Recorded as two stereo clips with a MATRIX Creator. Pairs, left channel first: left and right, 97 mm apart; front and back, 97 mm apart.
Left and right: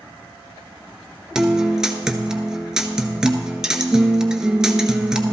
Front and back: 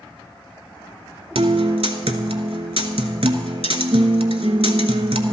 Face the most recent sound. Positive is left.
turn(degrees=-175)